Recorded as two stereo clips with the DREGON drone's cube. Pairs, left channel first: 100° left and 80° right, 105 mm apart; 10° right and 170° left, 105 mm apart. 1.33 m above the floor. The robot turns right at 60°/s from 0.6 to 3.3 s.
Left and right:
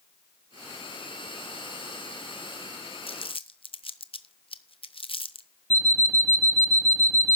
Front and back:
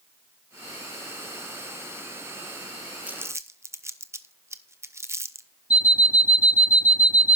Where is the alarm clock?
30° left, 0.8 m.